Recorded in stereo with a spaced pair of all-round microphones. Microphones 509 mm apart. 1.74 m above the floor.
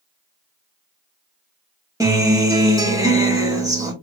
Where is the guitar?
5° right (ahead or behind), 2 m.